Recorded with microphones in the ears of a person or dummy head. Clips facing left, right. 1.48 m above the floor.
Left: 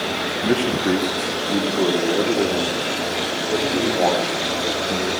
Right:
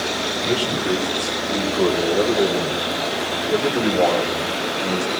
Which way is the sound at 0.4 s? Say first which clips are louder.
Left 3 dB; 35° left (ahead or behind).